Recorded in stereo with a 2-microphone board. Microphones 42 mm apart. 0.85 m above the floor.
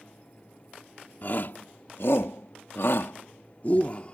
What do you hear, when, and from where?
1.2 s a shout: 50° left (ahead or behind); by 4.1 s 30° left (ahead or behind)